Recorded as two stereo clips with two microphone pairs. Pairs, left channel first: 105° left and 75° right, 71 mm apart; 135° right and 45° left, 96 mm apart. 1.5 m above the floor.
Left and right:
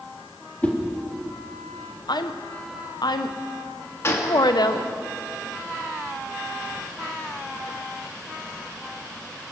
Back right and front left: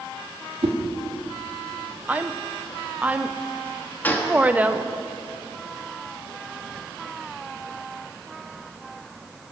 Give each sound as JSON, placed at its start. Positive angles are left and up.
{"t": 0.6, "sound": "a whoosh", "azimuth_deg": 40, "distance_m": 1.7}
{"t": 2.1, "sound": "a woman speaking", "azimuth_deg": 120, "distance_m": 0.7}
{"t": 4.0, "sound": "a gunshot", "azimuth_deg": 155, "distance_m": 1.5}